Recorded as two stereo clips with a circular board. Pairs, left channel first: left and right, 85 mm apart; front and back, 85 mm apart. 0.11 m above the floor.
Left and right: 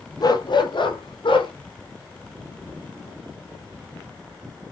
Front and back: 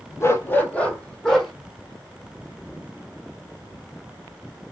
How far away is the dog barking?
About 1.0 m.